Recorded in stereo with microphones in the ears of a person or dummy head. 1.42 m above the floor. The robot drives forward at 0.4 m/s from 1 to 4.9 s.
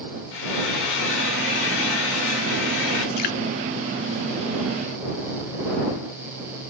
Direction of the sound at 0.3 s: 70° left (ahead or behind).